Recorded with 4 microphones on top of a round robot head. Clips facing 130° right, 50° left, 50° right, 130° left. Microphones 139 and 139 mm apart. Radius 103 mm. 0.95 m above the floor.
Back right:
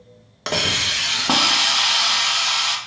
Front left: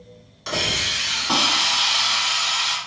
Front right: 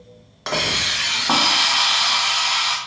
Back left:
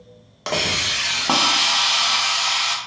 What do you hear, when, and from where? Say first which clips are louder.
0.5 s a hiss: back right 2 dB, even; 155° right, 0.6 m